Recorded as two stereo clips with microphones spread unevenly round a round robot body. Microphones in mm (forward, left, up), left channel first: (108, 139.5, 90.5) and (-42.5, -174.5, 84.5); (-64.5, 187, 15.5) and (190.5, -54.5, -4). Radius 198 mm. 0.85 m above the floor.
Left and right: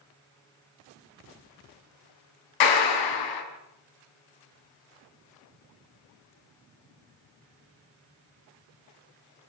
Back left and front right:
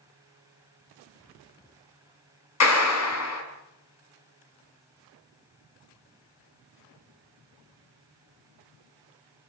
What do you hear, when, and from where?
2.6 s a clap: 95° left, 5 m